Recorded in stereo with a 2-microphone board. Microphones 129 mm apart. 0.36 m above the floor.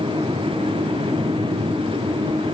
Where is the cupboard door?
I don't hear a cupboard door.